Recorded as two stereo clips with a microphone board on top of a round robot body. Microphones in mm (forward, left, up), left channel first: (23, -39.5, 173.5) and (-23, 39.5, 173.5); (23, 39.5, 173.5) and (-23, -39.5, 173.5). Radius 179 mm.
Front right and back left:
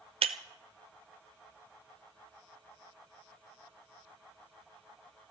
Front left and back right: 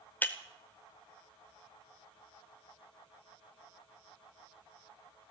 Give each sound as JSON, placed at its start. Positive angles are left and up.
{"t": 0.2, "sound": "breaking glass", "azimuth_deg": 130, "distance_m": 0.6}